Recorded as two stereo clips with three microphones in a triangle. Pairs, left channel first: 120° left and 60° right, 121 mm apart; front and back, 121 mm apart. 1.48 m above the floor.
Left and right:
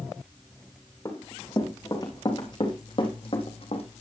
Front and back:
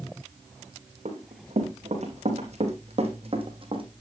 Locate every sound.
1.1 s running footsteps: 175° right, 4.5 m; by 3.9 s 145° left, 3 m